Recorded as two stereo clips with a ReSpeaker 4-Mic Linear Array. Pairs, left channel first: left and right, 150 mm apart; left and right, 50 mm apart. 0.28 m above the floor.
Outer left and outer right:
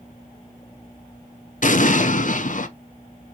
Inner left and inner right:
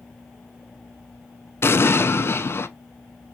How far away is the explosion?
About 0.5 m.